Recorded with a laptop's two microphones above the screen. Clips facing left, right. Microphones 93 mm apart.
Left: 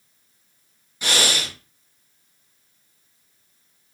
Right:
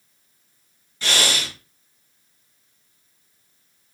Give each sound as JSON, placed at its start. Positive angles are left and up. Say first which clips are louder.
{"t": 1.0, "sound": "breathing", "louder": "even", "side_deg": 15, "distance_m": 0.7}